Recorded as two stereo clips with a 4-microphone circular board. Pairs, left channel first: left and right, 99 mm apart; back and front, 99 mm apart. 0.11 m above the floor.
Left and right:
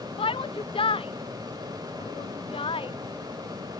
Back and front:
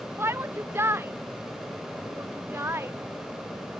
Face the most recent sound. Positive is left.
turn(degrees=65)